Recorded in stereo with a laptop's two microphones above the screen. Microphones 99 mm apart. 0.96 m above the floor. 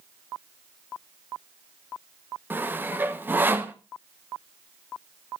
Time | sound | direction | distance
2.5 | sawing | 20° right (ahead or behind) | 0.9 m